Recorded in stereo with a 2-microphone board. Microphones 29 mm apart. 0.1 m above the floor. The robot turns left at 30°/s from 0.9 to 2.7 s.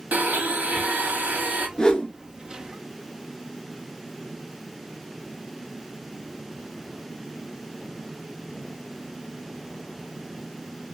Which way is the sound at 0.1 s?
75° right (ahead or behind).